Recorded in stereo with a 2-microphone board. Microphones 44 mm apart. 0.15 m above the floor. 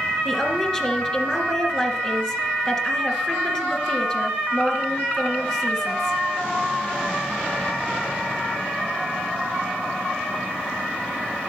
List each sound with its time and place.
0.2 s a woman speaking: 5° left (ahead or behind), 2 m